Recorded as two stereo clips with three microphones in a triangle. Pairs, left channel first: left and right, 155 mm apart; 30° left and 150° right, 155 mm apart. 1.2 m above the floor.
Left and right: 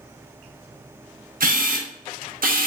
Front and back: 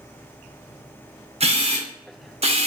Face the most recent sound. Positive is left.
turn(degrees=-105)